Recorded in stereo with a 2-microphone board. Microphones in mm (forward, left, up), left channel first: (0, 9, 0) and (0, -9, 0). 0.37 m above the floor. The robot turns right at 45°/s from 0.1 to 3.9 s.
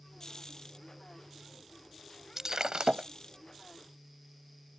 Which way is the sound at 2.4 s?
145° right.